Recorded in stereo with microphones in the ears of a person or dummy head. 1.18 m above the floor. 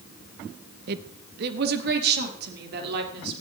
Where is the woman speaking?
55° right (ahead or behind), 0.9 m; by 3.4 s 60° right (ahead or behind), 4 m.